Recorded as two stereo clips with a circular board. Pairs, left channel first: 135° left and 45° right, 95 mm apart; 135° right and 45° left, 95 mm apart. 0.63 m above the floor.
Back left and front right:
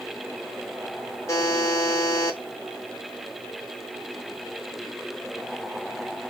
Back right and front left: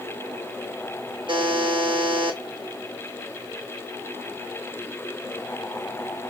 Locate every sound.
1.3 s a buzzer: 75° left, 0.6 m